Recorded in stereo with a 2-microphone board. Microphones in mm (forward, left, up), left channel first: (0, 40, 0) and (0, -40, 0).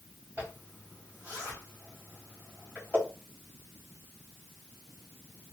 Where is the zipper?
20° right (ahead or behind), 1.8 m.